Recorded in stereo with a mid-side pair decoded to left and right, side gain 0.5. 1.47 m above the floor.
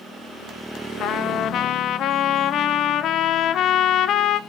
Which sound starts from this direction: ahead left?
A trumpet, at 1.0 s.